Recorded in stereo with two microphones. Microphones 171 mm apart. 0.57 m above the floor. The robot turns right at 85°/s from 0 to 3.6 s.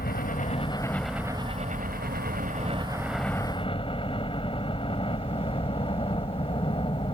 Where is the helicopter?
90° left; by 7.1 s 35° left.